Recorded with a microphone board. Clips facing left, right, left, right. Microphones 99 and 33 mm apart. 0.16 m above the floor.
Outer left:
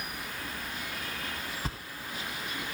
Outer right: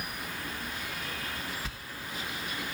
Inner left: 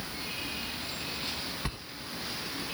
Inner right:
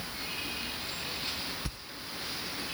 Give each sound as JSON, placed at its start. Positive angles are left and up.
{"t": 1.6, "sound": "a sliding door", "side_deg": 40, "distance_m": 0.8}